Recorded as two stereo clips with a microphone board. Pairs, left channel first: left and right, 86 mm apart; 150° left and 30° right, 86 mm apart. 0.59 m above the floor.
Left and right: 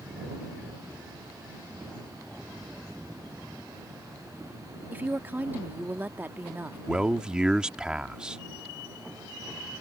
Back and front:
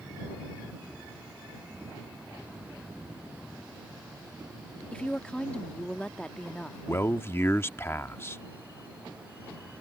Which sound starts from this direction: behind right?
A woman speaking, at 4.9 s.